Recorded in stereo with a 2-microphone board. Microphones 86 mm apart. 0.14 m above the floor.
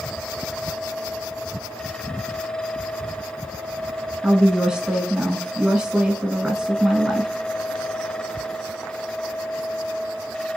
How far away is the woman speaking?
About 1.1 m.